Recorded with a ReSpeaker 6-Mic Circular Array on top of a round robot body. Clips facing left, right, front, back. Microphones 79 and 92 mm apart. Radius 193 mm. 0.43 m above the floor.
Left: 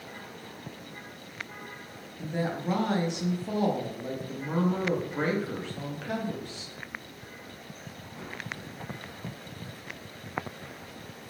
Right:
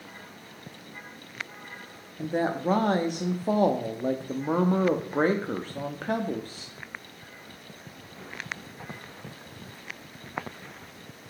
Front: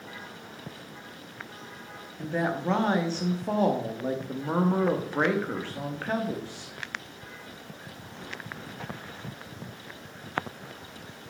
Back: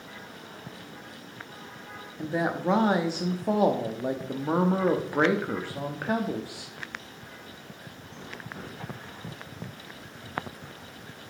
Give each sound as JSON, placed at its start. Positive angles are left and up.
{"t": 2.2, "sound": "a woman speaking", "azimuth_deg": -105, "distance_m": 0.9}